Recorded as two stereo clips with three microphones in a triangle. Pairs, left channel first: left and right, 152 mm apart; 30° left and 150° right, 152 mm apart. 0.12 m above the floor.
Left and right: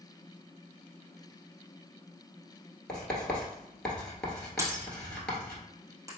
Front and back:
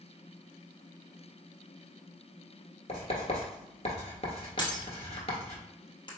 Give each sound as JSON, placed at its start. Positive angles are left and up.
{"t": 2.9, "sound": "writing", "azimuth_deg": 10, "distance_m": 1.4}
{"t": 4.6, "sound": "breaking glass", "azimuth_deg": -25, "distance_m": 1.3}